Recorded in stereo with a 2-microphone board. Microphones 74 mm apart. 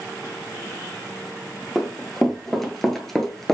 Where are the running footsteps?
5° left (ahead or behind), 1.3 m.